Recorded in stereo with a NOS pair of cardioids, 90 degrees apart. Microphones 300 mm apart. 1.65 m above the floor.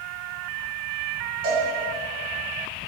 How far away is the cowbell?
About 1.2 m.